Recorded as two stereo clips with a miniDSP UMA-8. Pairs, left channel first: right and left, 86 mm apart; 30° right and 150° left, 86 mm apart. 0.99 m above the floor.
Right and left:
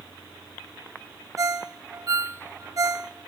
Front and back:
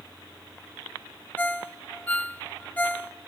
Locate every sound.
1.4 s a ringtone: 40° left, 0.7 m